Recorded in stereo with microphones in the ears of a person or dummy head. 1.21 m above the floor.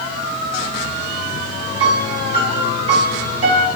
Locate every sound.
1.8 s a piano: 35° right (ahead or behind), 2.5 m